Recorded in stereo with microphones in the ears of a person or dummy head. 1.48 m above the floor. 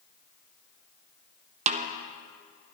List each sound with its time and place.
1.7 s a snare drum: 40° right (ahead or behind), 0.7 m